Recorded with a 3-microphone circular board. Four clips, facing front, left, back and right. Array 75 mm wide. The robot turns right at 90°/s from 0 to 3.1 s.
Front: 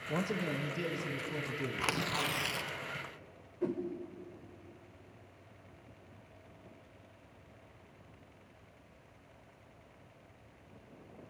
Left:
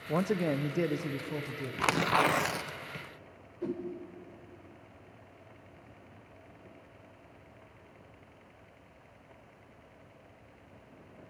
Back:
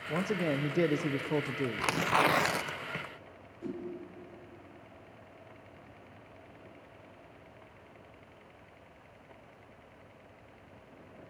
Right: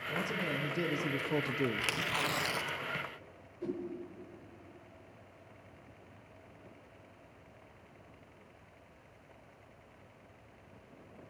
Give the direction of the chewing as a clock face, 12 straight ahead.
I don't hear chewing.